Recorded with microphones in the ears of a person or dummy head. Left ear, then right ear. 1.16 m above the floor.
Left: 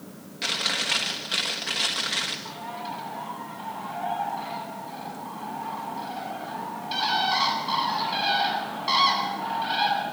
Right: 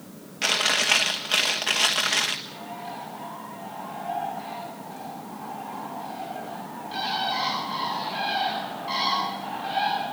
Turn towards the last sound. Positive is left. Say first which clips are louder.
# left 2 dB
turn(degrees=40)  # may be behind; listen again after turning